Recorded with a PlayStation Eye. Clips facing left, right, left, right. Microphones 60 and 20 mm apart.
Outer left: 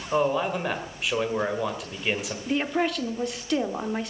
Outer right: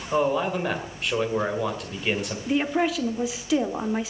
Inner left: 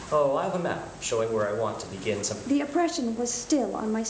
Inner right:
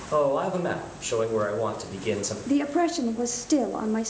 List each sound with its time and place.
0.1 s a man speaking: 5° left (ahead or behind), 1.8 m
2.5 s a woman speaking: 5° right (ahead or behind), 0.8 m